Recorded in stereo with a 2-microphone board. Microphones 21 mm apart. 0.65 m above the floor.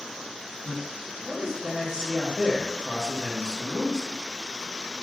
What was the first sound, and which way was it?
A man speaking, 35° right (ahead or behind).